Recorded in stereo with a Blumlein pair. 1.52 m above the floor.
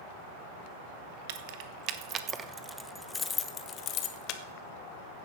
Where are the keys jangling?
50° right, 1.2 m; by 4.4 s 40° left, 1.4 m.